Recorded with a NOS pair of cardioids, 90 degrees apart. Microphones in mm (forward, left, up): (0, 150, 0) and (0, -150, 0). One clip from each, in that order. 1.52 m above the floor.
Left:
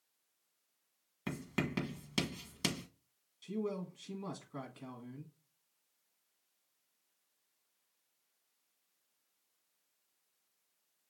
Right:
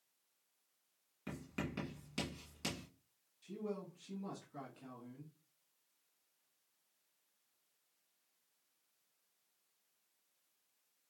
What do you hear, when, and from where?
1.3 s writing: 65° left, 1.5 m
3.4 s a man speaking: 65° left, 1.6 m